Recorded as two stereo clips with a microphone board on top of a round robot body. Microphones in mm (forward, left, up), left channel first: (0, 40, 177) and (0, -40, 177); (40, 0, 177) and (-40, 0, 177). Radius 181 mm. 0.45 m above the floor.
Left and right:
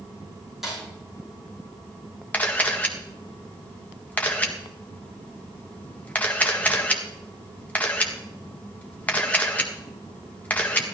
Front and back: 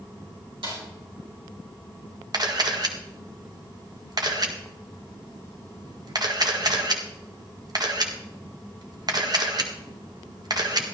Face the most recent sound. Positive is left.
turn(degrees=160)